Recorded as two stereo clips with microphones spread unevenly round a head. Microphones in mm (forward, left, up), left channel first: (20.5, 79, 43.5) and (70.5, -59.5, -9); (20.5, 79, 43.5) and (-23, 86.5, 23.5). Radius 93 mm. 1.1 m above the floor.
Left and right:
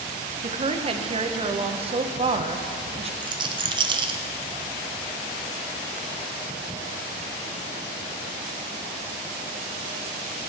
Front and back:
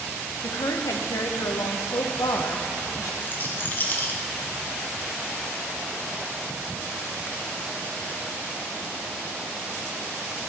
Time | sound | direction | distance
0.4 | a woman speaking | 45° right | 0.8 m
3.2 | a rattle | 80° right | 0.7 m